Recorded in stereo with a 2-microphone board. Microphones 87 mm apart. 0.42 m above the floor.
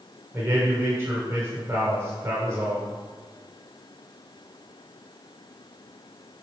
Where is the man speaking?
30° right (ahead or behind), 0.9 m.